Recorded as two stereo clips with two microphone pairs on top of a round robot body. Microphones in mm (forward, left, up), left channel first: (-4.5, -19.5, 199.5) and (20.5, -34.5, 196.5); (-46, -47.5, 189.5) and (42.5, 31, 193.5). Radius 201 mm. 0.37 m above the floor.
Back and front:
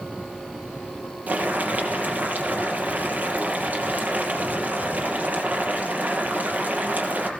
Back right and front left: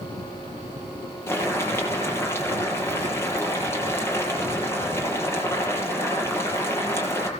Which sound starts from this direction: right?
Boiling, at 1.3 s.